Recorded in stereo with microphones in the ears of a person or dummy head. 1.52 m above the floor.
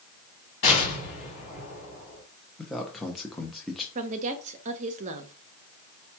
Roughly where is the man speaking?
Centre.